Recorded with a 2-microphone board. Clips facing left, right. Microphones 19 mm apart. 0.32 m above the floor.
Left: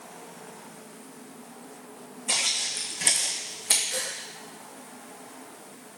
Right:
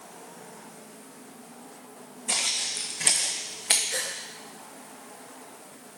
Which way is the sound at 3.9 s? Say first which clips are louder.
Right 1 dB; 30° right (ahead or behind).